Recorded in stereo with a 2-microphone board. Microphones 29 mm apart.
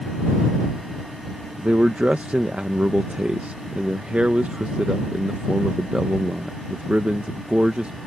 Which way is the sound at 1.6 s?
45° right (ahead or behind).